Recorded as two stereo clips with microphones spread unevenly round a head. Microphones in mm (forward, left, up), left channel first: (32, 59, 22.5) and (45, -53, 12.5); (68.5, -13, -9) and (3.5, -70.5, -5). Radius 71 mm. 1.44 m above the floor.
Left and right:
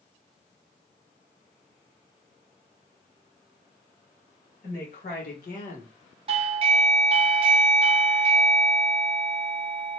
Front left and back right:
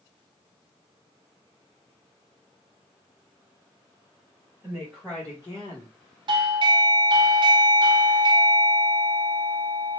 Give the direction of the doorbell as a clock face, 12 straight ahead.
4 o'clock.